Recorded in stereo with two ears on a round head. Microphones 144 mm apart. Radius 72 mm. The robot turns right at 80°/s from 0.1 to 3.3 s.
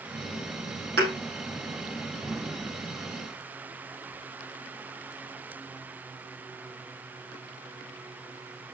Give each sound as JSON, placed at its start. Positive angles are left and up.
{"t": 1.0, "sound": "a thud", "side_deg": -75, "distance_m": 4.5}